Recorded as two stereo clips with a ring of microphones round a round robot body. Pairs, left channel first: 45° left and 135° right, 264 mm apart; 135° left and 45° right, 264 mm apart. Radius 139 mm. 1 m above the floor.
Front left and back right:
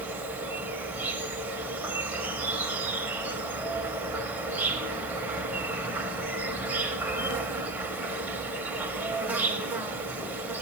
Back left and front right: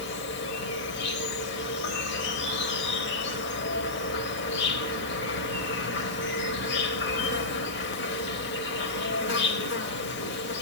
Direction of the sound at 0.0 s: 145° left.